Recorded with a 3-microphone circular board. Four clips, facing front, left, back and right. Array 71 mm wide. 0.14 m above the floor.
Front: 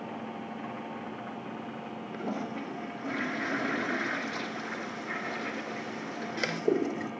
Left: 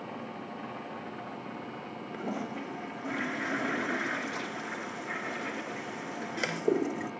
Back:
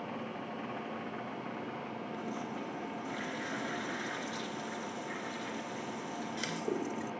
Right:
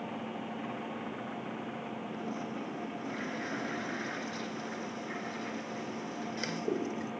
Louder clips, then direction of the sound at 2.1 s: Left 5 dB, front 7 dB; 40° left.